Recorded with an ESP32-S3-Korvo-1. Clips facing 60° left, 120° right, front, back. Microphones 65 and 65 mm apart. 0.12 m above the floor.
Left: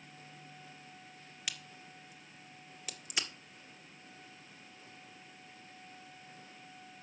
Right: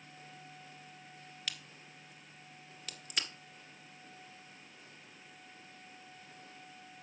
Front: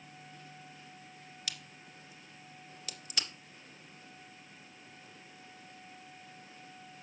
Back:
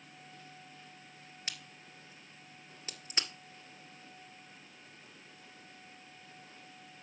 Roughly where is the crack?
Behind left.